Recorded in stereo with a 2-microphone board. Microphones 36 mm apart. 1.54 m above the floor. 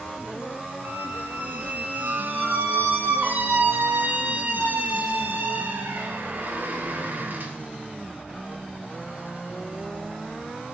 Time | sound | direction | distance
0.8 | a squeak | 60° right (ahead or behind) | 2.5 m